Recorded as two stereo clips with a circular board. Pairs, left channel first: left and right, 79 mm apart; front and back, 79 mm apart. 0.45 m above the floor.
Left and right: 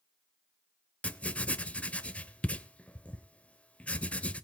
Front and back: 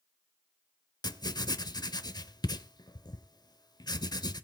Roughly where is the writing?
Ahead.